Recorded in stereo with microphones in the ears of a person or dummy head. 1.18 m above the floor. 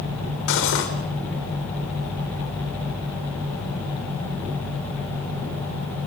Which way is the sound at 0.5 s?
65° left (ahead or behind).